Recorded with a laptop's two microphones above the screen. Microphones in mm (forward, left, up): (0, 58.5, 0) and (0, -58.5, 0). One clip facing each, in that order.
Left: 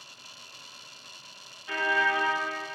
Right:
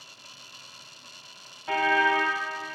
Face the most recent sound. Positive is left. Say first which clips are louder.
# right 4 dB
turn(degrees=-70)  # may be behind; listen again after turning